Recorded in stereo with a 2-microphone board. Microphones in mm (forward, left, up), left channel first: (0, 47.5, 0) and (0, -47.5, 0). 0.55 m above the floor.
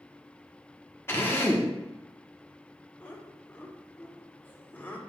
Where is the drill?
20° left (ahead or behind), 1.1 m.